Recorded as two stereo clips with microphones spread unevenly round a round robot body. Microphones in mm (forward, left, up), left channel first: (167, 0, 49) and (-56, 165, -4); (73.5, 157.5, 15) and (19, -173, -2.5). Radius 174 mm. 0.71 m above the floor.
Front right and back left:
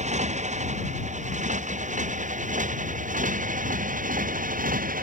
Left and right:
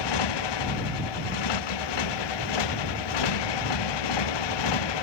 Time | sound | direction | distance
0.0 | a motorcycle | 80° left | ?